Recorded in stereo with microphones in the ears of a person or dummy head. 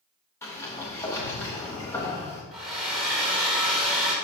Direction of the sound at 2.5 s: Centre (ahead or behind).